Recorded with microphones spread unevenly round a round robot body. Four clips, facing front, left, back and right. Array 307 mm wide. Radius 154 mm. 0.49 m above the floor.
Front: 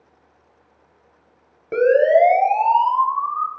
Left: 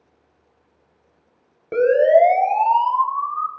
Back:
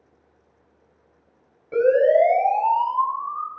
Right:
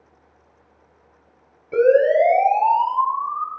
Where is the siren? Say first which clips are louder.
Left 1 dB, front 2 dB; 45° left, 8 m; by 3.5 s 40° left, 6.5 m.